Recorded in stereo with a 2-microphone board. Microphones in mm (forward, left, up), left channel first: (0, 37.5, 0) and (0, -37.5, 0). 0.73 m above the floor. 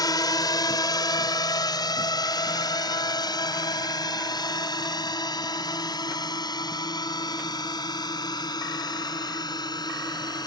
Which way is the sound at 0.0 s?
60° left (ahead or behind).